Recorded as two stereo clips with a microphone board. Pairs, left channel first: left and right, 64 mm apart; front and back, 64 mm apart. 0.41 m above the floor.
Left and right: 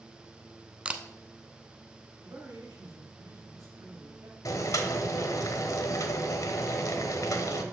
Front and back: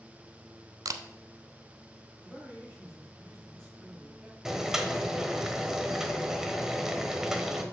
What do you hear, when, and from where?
0.8 s a camera shutter: 160° right, 0.6 m
2.2 s a man speaking: 95° right, 2.5 m
4.5 s boiling: 100° left, 1.0 m